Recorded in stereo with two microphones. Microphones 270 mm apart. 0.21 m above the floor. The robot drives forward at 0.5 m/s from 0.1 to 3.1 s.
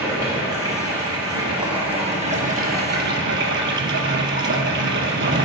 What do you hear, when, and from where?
0.0 s running water: 10° right (ahead or behind), 1.8 m; by 5.5 s 50° right (ahead or behind), 0.5 m